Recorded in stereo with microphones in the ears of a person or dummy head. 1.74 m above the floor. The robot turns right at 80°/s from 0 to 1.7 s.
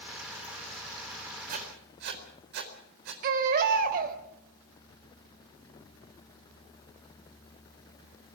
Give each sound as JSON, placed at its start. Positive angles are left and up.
{"t": 1.5, "sound": "writing", "side_deg": -45, "distance_m": 4.0}
{"t": 3.2, "sound": "a baby crying", "side_deg": -45, "distance_m": 3.5}